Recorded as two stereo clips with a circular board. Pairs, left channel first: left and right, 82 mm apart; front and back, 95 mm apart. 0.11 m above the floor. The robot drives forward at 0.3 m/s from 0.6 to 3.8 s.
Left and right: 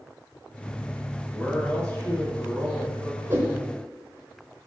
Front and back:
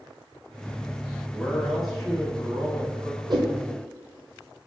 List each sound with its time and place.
1.3 s a man speaking: 60° left, 1.1 m; by 3.2 s 140° left, 1.2 m
3.3 s a whoosh: 150° right, 1.0 m